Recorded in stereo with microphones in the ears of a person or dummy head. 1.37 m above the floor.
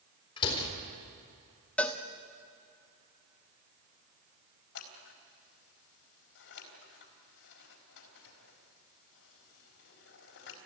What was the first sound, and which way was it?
A door slam, 30° left (ahead or behind).